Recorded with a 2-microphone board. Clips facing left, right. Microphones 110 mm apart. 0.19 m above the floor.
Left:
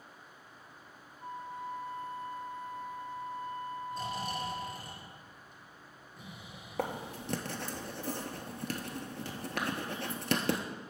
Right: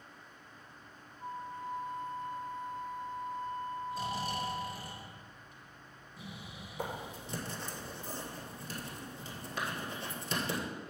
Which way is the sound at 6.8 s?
75° left (ahead or behind).